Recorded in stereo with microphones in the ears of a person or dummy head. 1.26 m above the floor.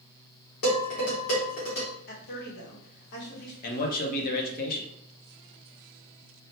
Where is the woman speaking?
60° left (ahead or behind), 1.1 m.